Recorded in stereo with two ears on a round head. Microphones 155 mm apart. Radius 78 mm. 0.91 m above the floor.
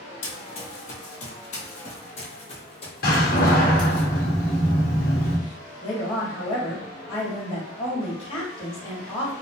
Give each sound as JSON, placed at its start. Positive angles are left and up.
{"t": 0.2, "sound": "running footsteps", "side_deg": 45, "distance_m": 1.4}
{"t": 3.0, "sound": "a door slam", "side_deg": 55, "distance_m": 1.2}
{"t": 5.8, "sound": "a woman speaking", "side_deg": 30, "distance_m": 2.0}